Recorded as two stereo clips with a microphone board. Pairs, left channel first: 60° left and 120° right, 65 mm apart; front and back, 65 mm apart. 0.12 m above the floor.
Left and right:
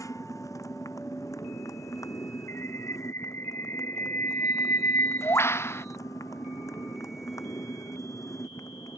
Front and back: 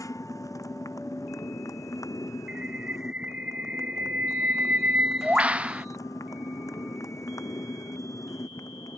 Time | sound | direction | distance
0.0 | a motorcycle | 30° left | ?
2.5 | a bird | 110° left | ?